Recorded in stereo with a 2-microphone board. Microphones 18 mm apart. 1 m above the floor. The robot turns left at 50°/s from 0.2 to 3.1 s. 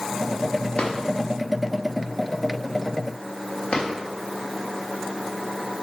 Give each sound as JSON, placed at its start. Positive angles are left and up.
{"t": 0.8, "sound": "a drawer", "side_deg": 65, "distance_m": 1.0}
{"t": 3.7, "sound": "a drawer", "side_deg": 75, "distance_m": 1.6}